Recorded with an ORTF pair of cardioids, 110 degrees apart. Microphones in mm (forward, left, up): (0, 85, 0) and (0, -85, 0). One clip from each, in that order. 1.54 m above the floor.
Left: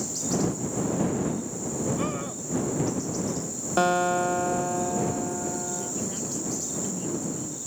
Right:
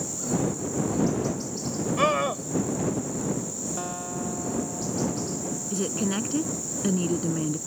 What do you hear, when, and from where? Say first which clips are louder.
2.0 s a scream: right 8 dB; 65° right
3.8 s a guitar: left 16 dB; 60° left
5.7 s a woman speaking: right 3 dB; 65° right